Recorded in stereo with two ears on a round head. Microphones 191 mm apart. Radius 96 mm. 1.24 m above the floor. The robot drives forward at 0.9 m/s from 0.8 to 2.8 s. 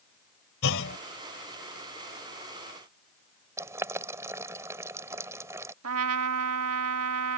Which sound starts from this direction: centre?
Boiling, at 3.6 s.